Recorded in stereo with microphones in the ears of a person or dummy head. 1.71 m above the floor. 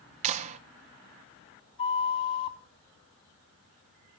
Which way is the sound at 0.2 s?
35° right (ahead or behind).